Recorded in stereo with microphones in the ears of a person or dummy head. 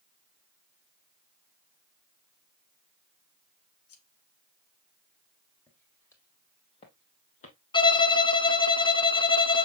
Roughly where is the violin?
Left.